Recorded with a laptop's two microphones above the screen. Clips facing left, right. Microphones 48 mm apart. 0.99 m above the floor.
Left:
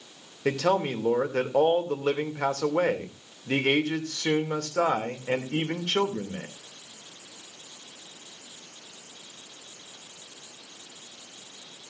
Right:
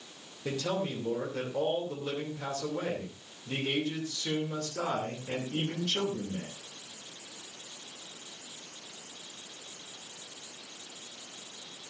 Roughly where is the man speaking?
Left.